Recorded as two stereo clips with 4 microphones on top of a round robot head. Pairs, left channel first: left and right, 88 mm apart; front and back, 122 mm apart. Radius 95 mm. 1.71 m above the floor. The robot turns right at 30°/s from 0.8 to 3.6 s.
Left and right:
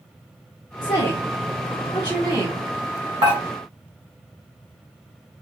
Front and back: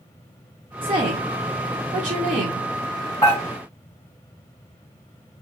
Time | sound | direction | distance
0.8 | a woman speaking | 135° left | 0.7 m
3.2 | dishes clattering | 70° right | 1.6 m